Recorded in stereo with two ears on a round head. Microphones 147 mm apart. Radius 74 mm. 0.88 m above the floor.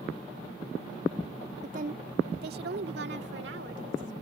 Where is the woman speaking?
50° right (ahead or behind); by 4.1 s 85° right.